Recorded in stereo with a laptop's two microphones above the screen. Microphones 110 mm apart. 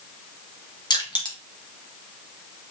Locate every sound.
0.9 s crushing: 40° left (ahead or behind), 1.0 m